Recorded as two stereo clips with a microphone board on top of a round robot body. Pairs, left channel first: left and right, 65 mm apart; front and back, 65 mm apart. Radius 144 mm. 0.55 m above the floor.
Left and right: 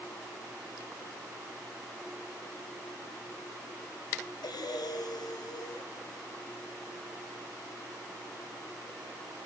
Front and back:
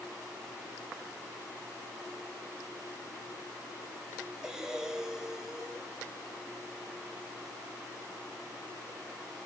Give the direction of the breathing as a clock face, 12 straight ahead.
9 o'clock.